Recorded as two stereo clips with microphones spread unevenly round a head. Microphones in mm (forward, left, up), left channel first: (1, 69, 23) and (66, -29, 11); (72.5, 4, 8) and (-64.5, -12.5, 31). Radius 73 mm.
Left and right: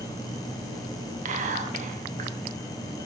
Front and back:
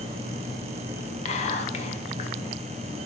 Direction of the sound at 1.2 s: 35° right.